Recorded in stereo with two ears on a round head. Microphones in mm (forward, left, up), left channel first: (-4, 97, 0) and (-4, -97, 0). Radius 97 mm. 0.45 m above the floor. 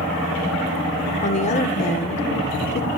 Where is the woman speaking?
35° left (ahead or behind), 1.0 m.